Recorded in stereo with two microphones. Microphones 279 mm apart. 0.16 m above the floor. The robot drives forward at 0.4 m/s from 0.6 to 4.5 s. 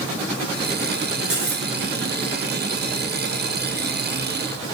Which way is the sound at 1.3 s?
50° right (ahead or behind).